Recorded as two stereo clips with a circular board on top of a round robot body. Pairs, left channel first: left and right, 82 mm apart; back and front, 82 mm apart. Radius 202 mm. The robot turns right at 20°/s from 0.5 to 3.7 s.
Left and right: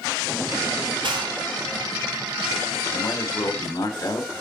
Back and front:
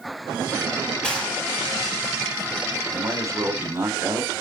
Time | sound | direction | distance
1.0 | a gunshot | 100° right | 4 m
2.9 | a man speaking | 40° left | 2 m